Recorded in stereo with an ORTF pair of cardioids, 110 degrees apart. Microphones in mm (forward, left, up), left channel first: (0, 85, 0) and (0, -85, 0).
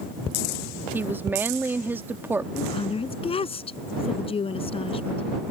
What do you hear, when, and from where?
0.9 s a woman speaking: 15° right
2.5 s a woman speaking: 35° left